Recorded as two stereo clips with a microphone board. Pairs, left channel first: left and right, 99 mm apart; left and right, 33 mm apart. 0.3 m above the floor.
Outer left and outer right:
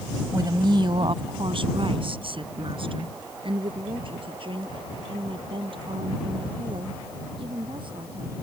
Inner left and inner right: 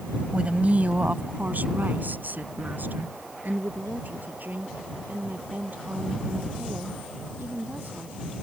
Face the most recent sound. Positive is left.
turn(degrees=-55)  # may be behind; listen again after turning